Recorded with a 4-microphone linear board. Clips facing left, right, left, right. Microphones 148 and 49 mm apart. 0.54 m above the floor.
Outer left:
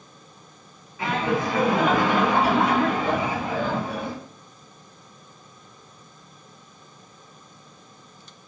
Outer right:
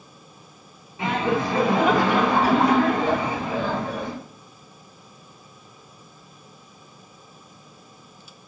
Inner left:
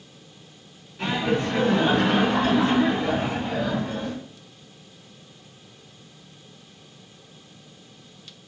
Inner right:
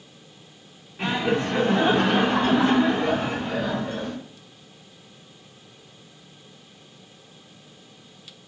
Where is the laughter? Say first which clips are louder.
Outer right 1 dB, even; 25° right (ahead or behind), 1.1 m; by 4.2 s 40° right (ahead or behind), 2.5 m.